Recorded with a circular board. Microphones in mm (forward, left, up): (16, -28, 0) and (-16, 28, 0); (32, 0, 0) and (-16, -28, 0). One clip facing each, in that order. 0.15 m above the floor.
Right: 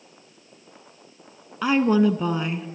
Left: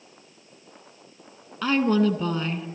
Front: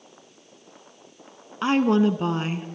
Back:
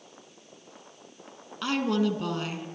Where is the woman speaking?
5° left, 1.3 m.